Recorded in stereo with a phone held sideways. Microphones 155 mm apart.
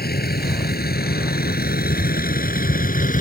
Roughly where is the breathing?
I don't hear breathing.